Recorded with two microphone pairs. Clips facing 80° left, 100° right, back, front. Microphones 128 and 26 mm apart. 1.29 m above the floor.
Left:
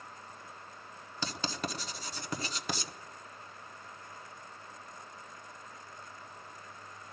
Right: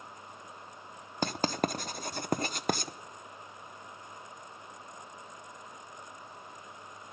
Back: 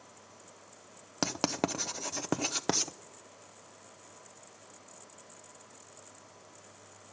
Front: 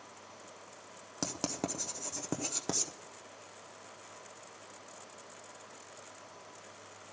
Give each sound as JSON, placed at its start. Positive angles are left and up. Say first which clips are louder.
{"t": 1.2, "sound": "writing", "louder": "right 7 dB, back 6 dB", "azimuth_deg": -130, "distance_m": 0.7}